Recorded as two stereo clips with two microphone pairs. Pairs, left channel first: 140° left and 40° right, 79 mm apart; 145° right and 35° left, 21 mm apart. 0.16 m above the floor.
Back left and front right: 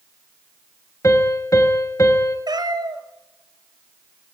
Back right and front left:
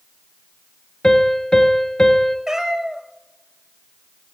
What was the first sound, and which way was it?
A piano, straight behind.